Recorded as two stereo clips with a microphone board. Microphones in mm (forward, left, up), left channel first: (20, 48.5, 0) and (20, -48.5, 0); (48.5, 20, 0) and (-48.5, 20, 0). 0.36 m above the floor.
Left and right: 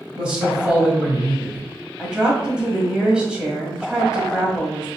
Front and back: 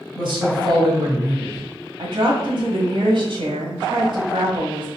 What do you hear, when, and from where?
0.1 s a man speaking: 170° right, 1.9 m
2.0 s a woman speaking: 170° right, 1.5 m